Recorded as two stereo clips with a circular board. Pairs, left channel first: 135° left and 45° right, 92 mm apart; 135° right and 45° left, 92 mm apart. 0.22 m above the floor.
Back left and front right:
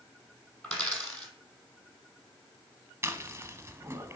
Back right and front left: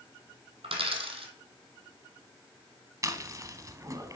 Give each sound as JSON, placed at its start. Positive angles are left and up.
{"t": 0.6, "sound": "a dropped coin", "azimuth_deg": 55, "distance_m": 1.2}
{"t": 3.0, "sound": "chewing", "azimuth_deg": 10, "distance_m": 0.8}